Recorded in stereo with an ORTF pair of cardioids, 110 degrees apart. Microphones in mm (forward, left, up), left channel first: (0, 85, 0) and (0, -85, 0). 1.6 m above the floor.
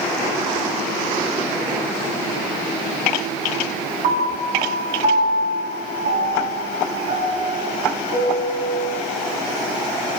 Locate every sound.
4.0 s a piano: 65° right, 9.5 m